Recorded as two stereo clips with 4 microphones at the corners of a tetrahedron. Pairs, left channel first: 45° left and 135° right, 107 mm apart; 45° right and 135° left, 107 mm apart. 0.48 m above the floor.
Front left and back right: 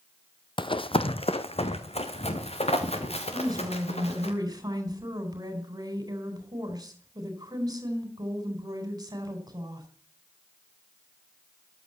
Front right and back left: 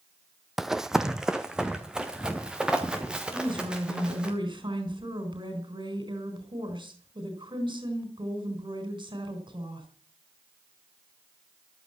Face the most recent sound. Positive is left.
turn(degrees=175)